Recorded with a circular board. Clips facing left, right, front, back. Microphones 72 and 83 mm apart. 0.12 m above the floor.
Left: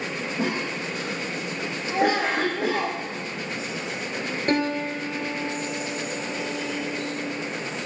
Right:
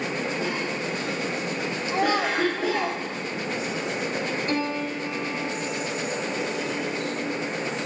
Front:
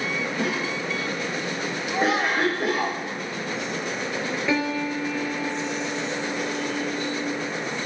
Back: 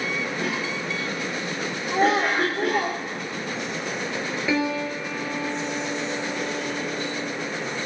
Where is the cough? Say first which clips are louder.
Left 1 dB, front 1 dB; 80° left, 6.5 m.